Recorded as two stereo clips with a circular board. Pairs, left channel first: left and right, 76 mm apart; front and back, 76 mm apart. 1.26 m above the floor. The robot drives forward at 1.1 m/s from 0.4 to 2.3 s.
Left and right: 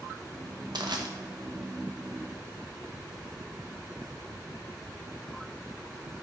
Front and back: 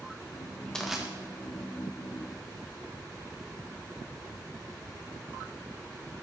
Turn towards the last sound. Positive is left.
turn(degrees=-155)